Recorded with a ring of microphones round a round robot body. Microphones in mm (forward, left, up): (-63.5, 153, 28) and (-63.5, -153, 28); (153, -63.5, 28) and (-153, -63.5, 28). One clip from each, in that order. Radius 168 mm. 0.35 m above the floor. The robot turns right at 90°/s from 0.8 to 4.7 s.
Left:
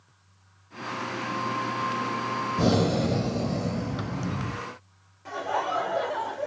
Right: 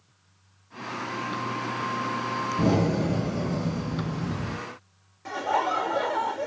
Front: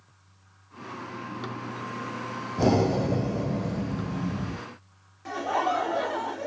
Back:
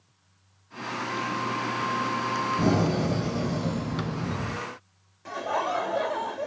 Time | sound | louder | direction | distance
2.6 | breathing | left 2 dB, front 1 dB | 75° left | 2.5 m
5.2 | laughter | right 3 dB, front 2 dB | 85° right | 1.0 m